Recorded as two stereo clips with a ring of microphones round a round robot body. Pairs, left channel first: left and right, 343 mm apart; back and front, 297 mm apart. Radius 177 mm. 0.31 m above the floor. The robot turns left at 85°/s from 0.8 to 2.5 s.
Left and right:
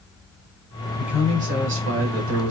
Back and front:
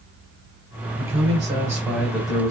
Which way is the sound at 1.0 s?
5° left.